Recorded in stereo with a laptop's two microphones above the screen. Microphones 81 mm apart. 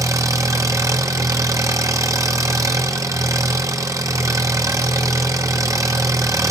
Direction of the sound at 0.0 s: 45° right (ahead or behind).